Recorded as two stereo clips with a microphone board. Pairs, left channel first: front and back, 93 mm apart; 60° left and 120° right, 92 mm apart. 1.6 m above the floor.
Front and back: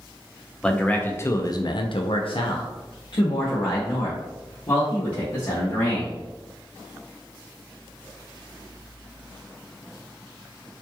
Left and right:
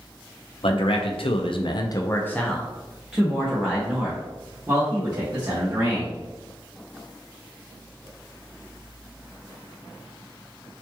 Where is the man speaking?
80° left, 0.8 m; by 6.2 s 55° right, 2.5 m.